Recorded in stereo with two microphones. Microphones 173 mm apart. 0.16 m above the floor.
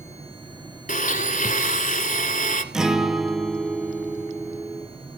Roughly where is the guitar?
Centre.